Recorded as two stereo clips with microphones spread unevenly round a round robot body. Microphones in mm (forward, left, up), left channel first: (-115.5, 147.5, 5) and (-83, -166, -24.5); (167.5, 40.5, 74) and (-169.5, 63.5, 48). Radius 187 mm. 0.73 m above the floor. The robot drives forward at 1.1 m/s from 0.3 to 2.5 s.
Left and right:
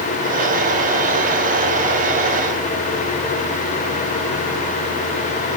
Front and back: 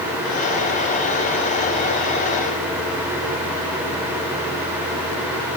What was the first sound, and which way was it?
Only background noise.